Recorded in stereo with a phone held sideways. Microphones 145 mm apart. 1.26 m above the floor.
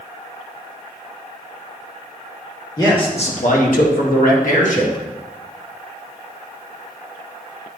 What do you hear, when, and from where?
2.8 s a man speaking: 25° left (ahead or behind), 2.0 m; by 5.0 s 50° left (ahead or behind), 2.5 m